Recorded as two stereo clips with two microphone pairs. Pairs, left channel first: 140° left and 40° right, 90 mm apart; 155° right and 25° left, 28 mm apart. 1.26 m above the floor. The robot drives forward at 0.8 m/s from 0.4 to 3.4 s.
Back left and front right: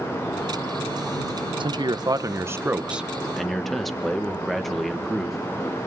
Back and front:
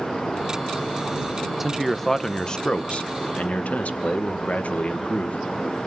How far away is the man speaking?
About 1.2 m.